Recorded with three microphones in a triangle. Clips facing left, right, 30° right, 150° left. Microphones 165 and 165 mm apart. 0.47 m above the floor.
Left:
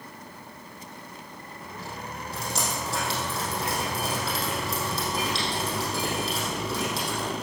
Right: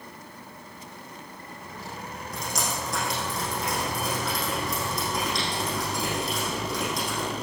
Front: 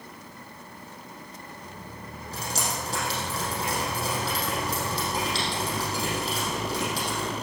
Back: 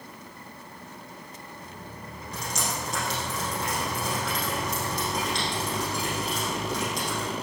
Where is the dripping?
30° left, 4.5 m.